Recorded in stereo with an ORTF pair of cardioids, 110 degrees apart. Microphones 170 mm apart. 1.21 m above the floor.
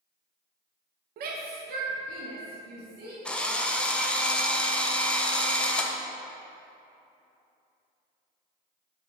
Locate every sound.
1.2 s a shout: 55° right, 0.7 m; by 3.1 s 60° right, 1.7 m
3.2 s a drill: 5° left, 0.6 m